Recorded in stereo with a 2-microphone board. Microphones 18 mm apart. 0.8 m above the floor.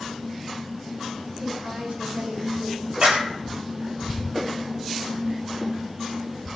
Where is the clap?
50° right (ahead or behind), 4 m.